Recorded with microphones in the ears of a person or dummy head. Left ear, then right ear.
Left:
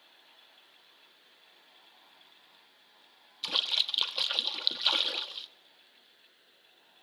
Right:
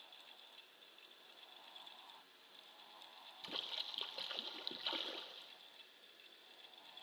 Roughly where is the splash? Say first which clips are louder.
Left 16 dB; left.